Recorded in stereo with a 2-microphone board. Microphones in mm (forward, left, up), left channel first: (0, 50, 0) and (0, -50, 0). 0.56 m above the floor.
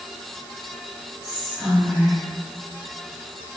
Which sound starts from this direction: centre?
Whispering, at 1.2 s.